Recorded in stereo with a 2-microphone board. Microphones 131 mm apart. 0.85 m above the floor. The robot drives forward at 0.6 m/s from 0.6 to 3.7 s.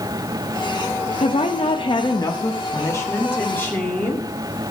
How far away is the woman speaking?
About 0.6 m.